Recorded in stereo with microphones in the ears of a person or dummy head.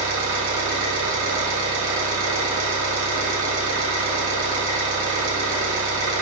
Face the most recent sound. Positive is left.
turn(degrees=-85)